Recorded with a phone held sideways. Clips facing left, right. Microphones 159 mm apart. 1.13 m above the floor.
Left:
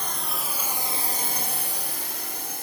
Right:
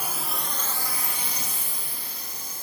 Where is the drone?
10° right (ahead or behind); by 2.6 s 70° left (ahead or behind).